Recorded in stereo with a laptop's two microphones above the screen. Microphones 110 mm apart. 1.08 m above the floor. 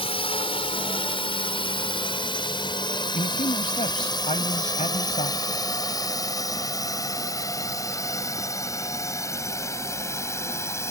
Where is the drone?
60° left (ahead or behind); by 10.9 s 25° left (ahead or behind).